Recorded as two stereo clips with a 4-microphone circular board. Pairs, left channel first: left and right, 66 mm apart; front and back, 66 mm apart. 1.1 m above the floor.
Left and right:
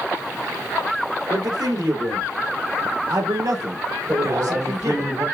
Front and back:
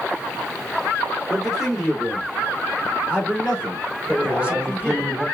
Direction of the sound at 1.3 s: 95° right.